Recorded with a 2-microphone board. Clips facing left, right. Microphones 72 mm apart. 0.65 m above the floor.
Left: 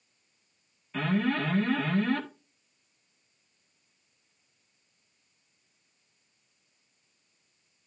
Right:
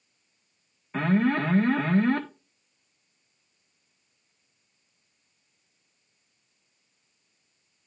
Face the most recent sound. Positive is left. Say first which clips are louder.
# right 4 dB
turn(degrees=-35)  # may be behind; listen again after turning